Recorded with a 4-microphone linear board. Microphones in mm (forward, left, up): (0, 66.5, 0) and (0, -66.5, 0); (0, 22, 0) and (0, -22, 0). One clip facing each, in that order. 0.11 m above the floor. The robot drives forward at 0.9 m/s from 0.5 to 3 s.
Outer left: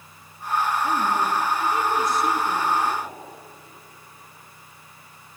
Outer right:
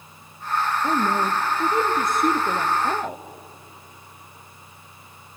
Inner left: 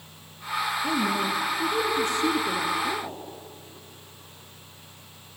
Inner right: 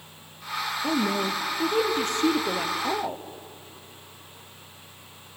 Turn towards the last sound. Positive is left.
turn(degrees=-65)  # may be behind; listen again after turning